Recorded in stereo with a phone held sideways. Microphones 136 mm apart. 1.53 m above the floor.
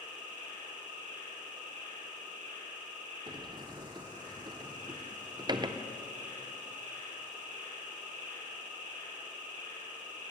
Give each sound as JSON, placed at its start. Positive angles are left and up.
{"t": 0.0, "sound": "an insect", "side_deg": -65, "distance_m": 4.5}
{"t": 3.3, "sound": "a sliding door", "side_deg": -30, "distance_m": 0.5}